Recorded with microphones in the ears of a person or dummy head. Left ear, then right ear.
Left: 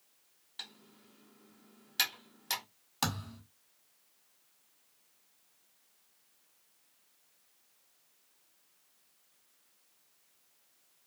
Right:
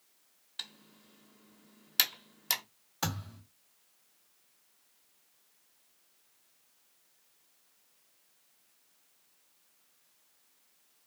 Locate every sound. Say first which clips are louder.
0.6 s typing on a keyboard: right 3 dB; 10° right (ahead or behind), 0.8 m
3.0 s a thud: left 1 dB; 35° left (ahead or behind), 1.7 m